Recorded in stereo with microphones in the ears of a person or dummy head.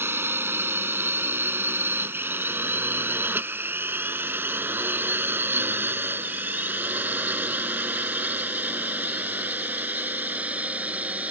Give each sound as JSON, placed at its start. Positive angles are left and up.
{"t": 0.0, "sound": "a drone", "side_deg": -10}